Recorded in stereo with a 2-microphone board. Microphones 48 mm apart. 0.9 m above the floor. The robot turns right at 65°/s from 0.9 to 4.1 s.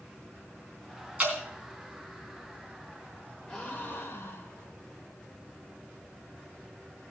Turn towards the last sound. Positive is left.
turn(degrees=55)